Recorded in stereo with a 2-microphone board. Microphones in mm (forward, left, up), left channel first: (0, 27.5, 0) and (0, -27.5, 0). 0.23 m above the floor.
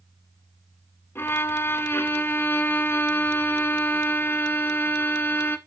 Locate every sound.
1.1 s a violin: 45° left (ahead or behind), 0.9 m